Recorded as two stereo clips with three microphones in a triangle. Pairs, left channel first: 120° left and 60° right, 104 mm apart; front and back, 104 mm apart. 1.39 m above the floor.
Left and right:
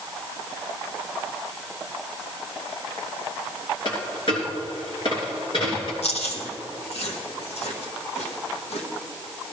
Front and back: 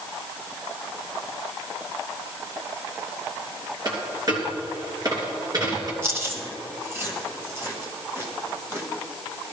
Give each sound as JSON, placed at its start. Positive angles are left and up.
{"t": 3.9, "sound": "a dropped coin", "azimuth_deg": 135, "distance_m": 3.0}
{"t": 6.0, "sound": "chewing", "azimuth_deg": 115, "distance_m": 1.7}